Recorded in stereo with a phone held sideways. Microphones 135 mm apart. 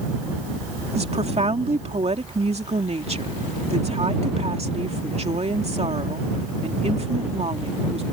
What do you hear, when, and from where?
0.9 s a woman speaking: 50° right (ahead or behind)